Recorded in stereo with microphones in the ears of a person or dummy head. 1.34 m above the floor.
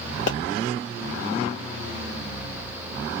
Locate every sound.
0.3 s a pop: 50° left (ahead or behind), 1.0 m